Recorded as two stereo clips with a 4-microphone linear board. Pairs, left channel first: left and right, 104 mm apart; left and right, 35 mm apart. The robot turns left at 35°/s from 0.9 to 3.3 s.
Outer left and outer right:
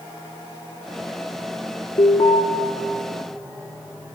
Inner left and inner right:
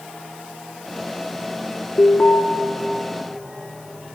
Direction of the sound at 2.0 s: 55° left (ahead or behind).